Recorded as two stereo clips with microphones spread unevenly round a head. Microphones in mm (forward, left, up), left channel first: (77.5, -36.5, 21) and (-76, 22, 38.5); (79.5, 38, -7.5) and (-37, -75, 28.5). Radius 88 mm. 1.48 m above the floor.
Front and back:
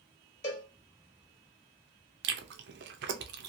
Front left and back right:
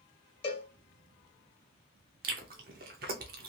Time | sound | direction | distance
0.4 | a cowbell | 10° right | 1.3 m
2.2 | chewing | straight behind | 0.6 m